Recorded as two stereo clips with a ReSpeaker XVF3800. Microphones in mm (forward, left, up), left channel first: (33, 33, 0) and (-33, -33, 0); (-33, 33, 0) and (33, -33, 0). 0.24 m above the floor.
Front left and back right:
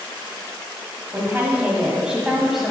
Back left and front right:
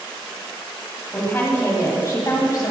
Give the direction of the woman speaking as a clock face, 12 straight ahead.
6 o'clock.